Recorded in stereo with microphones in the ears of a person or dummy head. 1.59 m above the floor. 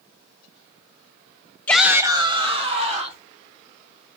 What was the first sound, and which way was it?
A shout, 10° left (ahead or behind).